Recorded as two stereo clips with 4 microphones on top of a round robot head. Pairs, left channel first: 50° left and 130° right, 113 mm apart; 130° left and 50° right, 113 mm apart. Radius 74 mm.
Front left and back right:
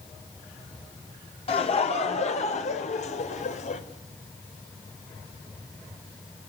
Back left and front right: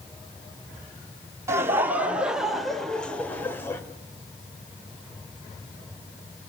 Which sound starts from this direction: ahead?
Laughter, at 1.5 s.